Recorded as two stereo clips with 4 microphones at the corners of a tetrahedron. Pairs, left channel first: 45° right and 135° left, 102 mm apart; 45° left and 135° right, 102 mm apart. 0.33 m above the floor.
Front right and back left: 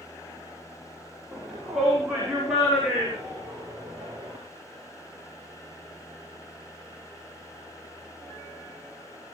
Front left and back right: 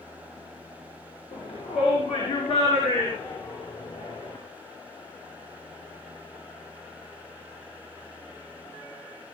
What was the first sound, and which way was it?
A shout, 50° left.